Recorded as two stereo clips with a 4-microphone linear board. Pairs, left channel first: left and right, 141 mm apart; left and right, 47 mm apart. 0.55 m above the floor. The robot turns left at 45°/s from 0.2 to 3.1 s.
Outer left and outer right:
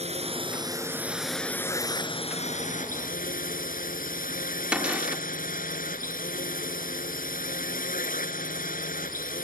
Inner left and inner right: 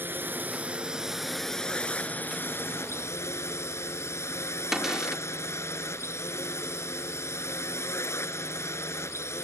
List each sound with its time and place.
0.0 s a drone: 130° right; by 9.5 s 100° left
4.7 s a cupboard door: 10° right (ahead or behind)